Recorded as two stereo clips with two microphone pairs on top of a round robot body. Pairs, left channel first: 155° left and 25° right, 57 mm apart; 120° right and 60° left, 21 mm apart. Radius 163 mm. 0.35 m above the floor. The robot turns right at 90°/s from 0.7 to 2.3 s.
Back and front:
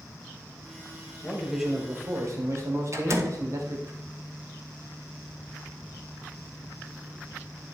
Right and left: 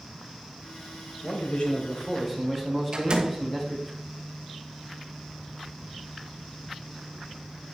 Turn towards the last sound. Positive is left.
turn(degrees=5)